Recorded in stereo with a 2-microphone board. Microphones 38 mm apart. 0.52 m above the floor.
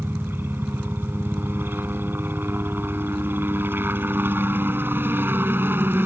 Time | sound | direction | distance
0.0 | a helicopter | 75° right (ahead or behind) | ?